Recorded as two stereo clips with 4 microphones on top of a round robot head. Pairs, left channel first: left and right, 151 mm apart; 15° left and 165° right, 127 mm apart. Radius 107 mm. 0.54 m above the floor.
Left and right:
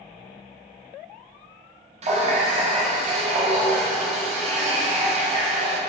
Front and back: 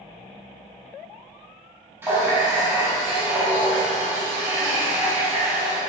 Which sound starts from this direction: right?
A running tap, at 2.0 s.